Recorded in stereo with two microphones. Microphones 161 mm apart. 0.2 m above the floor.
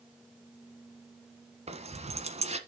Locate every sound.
1.7 s keys jangling: 40° right (ahead or behind), 1.3 m